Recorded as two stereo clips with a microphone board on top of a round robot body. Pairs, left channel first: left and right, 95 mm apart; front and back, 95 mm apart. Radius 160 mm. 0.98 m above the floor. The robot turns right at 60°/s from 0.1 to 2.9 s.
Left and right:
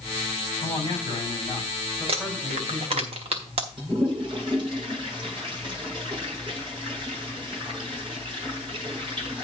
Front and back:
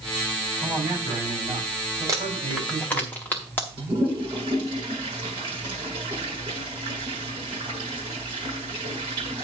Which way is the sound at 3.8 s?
135° right.